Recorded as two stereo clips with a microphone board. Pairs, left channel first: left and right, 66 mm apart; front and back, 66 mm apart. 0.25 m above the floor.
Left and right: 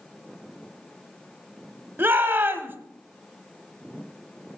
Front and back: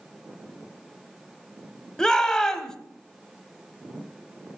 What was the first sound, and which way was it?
A shout, 75° right.